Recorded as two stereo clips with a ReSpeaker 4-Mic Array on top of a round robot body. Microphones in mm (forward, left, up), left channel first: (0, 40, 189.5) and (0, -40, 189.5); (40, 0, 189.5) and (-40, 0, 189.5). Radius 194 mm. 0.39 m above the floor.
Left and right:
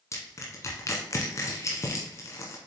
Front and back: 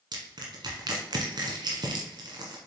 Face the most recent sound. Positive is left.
turn(degrees=145)